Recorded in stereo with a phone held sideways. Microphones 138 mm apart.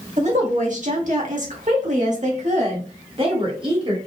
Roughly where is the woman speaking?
Right.